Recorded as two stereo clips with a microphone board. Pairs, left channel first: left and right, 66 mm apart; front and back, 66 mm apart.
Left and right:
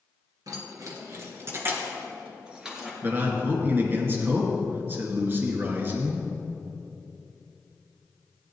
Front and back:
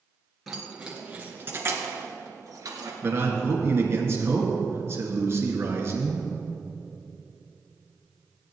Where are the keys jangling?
95° right, 2.5 m; by 2.9 s 175° right, 2.5 m.